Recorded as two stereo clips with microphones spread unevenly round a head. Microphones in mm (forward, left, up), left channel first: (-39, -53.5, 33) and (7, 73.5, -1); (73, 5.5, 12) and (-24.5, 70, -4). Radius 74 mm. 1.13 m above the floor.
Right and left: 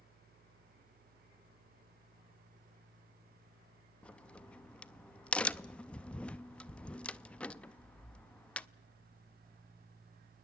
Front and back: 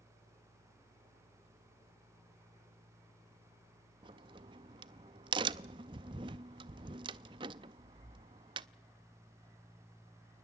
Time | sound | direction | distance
4.0 | a crack | 170° right | 0.5 m